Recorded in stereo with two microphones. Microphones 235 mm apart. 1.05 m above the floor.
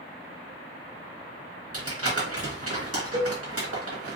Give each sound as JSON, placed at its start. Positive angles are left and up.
{"t": 1.7, "sound": "crumpling", "side_deg": -65, "distance_m": 1.2}
{"t": 3.1, "sound": "a cowbell", "side_deg": -60, "distance_m": 1.1}